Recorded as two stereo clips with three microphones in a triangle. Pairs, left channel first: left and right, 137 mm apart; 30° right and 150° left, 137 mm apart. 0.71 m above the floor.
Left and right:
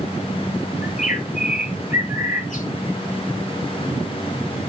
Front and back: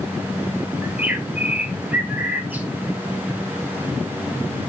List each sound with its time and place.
0.8 s a bird: 75° left, 1.8 m